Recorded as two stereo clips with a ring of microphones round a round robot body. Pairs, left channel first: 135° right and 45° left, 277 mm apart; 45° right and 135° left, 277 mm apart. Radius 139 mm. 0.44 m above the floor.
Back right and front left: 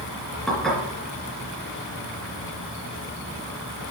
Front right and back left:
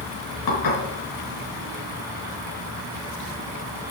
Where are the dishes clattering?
45° right, 3.5 m.